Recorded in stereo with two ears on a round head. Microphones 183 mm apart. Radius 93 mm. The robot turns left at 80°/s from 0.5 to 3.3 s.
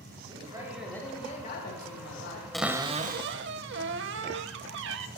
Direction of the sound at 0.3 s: 155° right.